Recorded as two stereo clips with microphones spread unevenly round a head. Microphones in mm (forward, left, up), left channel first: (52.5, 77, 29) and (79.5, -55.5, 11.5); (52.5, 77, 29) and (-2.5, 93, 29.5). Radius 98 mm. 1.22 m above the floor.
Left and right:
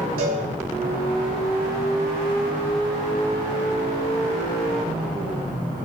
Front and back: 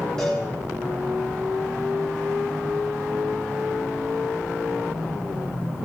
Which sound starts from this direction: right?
A cowbell, at 0.2 s.